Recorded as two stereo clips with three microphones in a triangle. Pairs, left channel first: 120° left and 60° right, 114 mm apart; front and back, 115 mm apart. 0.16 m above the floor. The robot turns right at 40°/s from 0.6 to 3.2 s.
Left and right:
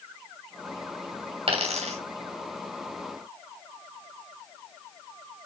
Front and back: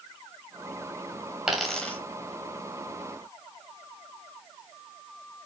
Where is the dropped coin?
95° right, 2.5 m; by 2.0 s 75° right, 2.5 m.